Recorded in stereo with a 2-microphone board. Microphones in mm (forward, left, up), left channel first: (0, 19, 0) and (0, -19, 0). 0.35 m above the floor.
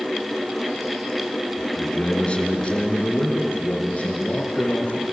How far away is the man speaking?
About 3 m.